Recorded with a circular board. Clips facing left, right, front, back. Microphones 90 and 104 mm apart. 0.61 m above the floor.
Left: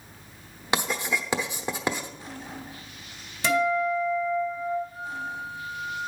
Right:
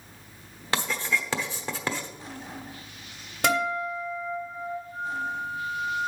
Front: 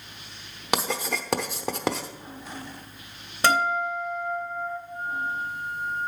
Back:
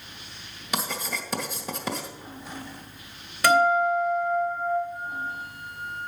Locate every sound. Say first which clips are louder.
0.7 s writing: left 1 dB, front 4 dB; 15° left, 0.9 m
3.4 s a guitar: left 3 dB, back 4 dB; 65° right, 3 m
4.9 s a flute: right 3 dB, front 3 dB; 10° right, 5 m